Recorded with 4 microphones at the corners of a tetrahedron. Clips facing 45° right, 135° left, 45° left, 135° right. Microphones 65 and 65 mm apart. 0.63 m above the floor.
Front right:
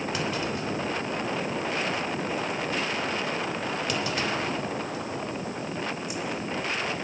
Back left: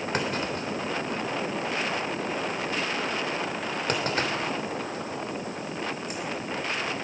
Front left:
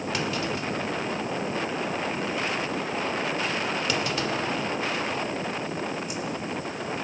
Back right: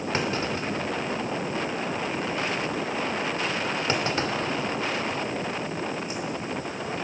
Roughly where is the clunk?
Behind.